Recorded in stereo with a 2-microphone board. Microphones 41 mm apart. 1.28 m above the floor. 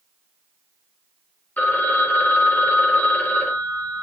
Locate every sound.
1.6 s a phone ringing: 40° left (ahead or behind), 1.0 m